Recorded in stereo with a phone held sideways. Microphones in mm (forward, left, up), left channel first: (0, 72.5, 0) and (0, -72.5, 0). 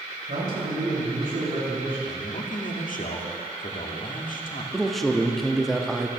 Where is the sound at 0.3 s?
80° right, 4.5 m.